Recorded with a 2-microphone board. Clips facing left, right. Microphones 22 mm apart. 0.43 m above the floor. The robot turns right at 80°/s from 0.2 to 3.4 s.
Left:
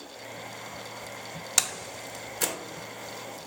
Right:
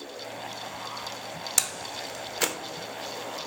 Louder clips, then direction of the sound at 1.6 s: Left 2 dB; 10° left (ahead or behind).